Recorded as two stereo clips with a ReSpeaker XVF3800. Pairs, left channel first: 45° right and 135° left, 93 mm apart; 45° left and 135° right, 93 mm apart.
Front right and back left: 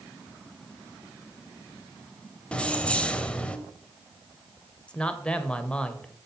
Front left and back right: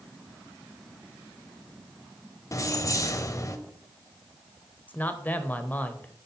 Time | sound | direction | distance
2.5 | keys jangling | 25° left | 0.9 m
4.9 | a man speaking | 15° left | 1.0 m